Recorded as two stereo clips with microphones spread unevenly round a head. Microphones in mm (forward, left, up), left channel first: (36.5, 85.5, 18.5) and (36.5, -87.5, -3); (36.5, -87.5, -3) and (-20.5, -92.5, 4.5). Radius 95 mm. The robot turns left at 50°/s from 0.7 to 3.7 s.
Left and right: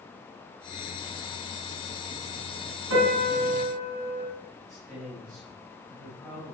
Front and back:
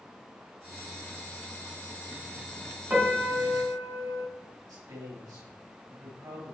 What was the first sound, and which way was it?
A piano, 115° right.